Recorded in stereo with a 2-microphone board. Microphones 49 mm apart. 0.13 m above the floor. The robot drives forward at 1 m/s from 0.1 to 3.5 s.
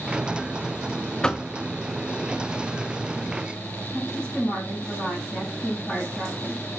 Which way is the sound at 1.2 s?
15° left (ahead or behind).